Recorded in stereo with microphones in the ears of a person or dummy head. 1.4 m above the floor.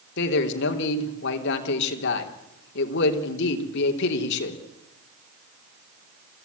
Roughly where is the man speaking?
Left.